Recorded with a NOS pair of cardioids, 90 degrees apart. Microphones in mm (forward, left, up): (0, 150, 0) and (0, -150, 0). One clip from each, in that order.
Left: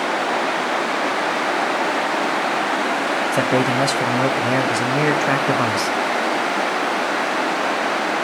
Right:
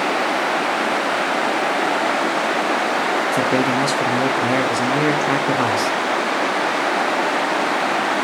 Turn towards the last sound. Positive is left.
turn(degrees=10)